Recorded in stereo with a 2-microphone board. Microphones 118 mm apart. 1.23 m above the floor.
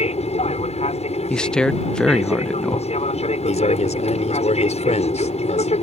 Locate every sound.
0.0 s an aircraft: 65° left (ahead or behind)
1.3 s a man speaking: 5° left (ahead or behind)
3.4 s a man speaking: 75° left (ahead or behind)